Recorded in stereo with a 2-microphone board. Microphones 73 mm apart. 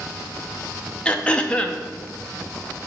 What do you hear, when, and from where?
1.1 s throat clearing: 15° left (ahead or behind), 0.6 m